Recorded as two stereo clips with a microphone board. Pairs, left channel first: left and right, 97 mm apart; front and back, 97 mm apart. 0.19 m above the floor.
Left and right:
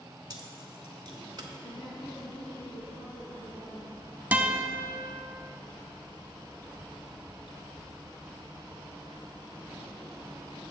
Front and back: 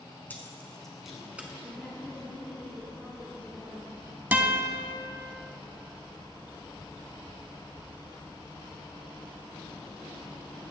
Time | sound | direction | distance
0.3 | keys jangling | 65° right | 1.0 m
1.6 | a woman speaking | 80° left | 2.5 m
4.3 | a guitar | 135° right | 0.7 m